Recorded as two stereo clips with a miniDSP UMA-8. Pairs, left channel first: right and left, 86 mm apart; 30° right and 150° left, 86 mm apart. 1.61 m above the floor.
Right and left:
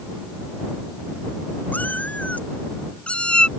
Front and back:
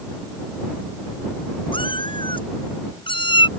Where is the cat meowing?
20° right; by 3.5 s 10° right.